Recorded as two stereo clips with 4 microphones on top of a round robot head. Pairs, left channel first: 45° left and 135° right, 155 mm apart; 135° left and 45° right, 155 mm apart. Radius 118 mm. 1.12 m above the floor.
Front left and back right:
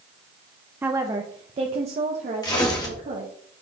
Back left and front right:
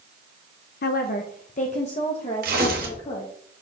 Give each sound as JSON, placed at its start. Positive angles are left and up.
{"t": 0.8, "sound": "a woman speaking", "azimuth_deg": 145, "distance_m": 0.5}
{"t": 2.4, "sound": "tearing paper", "azimuth_deg": -20, "distance_m": 1.2}